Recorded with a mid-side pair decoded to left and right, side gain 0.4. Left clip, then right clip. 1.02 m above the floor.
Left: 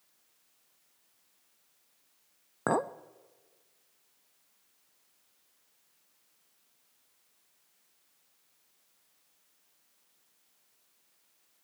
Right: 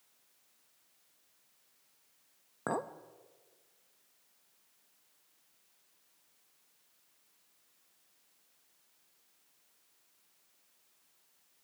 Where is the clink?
50° left, 0.5 m.